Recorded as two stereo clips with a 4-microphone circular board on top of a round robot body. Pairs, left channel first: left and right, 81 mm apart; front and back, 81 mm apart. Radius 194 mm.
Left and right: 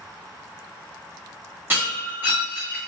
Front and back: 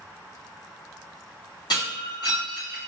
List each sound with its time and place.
1.7 s breaking glass: 25° right, 1.3 m